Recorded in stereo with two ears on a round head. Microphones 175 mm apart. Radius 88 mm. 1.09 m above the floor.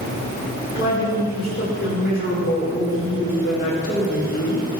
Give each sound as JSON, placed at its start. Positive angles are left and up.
{"t": 0.8, "sound": "a woman speaking", "side_deg": 45, "distance_m": 3.5}